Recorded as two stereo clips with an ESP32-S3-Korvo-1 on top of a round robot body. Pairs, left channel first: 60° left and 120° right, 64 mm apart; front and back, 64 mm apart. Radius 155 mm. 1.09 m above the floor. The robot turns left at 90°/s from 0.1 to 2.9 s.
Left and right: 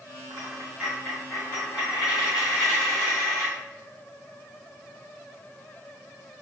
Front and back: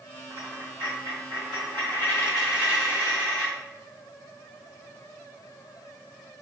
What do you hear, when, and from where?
0.3 s a dropped coin: 150° right, 1.7 m; by 3.5 s 25° right, 1.7 m